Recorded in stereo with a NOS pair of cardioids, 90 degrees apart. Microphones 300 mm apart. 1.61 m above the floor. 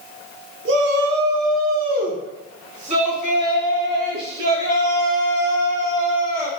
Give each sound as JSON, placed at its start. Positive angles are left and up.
{"t": 0.7, "sound": "a shout", "azimuth_deg": -45, "distance_m": 1.6}